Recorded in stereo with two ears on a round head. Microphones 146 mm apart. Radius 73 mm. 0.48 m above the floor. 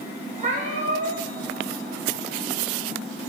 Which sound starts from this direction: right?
A cat meowing, at 0.4 s.